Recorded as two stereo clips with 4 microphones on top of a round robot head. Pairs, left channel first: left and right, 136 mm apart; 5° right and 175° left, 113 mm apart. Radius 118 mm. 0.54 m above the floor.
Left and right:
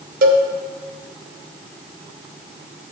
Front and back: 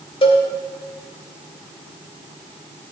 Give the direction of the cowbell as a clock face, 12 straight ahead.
2 o'clock.